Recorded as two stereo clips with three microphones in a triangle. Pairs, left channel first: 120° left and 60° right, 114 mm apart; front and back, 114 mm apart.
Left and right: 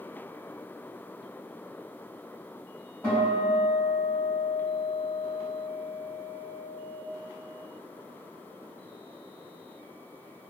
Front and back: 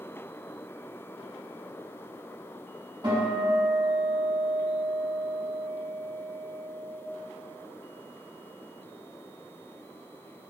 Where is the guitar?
175° left, 1.4 m.